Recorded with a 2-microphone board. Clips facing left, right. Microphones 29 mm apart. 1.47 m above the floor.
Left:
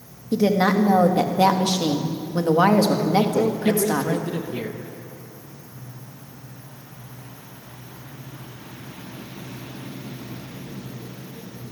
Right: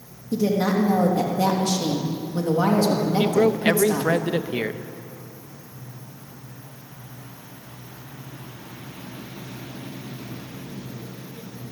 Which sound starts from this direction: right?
A man speaking, at 3.2 s.